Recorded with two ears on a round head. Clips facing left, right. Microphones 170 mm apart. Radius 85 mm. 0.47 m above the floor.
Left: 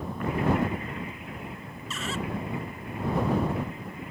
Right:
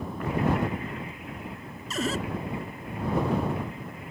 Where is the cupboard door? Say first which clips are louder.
Right 5 dB; 35° right (ahead or behind).